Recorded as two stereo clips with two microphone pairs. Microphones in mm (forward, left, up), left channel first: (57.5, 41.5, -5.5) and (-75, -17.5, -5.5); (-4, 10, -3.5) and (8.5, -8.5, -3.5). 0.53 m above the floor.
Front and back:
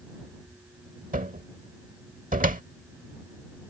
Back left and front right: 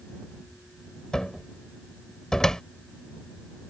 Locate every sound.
1.1 s a cupboard door: 175° right